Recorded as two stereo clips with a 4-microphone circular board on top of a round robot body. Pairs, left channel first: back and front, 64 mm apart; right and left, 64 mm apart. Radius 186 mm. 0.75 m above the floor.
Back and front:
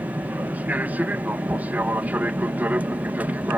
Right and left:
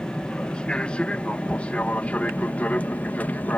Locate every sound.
0.0 s an aircraft: 30° right; by 3.6 s 45° right